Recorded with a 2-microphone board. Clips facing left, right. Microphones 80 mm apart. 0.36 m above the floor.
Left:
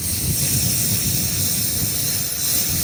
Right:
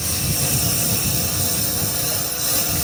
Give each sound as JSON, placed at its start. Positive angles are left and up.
{"t": 0.0, "sound": "a lawn mower", "side_deg": -80}